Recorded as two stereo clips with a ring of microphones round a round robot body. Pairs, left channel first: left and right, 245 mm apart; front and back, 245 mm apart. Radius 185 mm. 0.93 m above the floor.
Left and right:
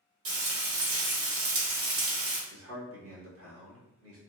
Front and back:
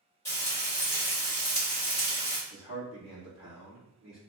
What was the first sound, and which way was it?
Frying, 80° right.